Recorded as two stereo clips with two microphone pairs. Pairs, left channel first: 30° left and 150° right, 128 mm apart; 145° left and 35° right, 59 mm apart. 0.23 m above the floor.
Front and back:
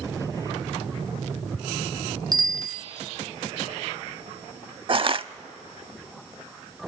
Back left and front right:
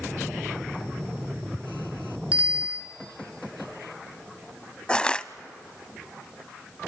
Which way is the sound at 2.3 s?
100° right.